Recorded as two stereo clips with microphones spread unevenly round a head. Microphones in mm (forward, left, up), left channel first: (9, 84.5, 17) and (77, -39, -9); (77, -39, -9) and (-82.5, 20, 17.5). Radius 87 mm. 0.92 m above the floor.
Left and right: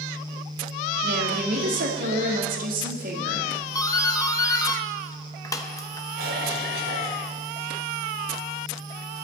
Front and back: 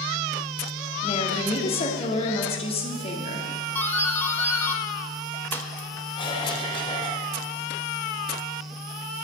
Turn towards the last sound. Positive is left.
turn(degrees=-85)